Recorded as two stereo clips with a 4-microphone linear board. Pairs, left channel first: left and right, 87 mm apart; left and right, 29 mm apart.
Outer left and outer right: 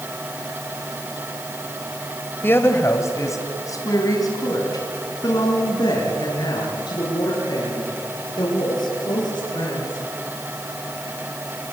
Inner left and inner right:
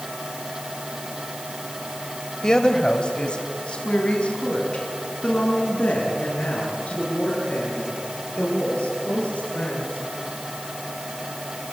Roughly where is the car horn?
I don't hear a car horn.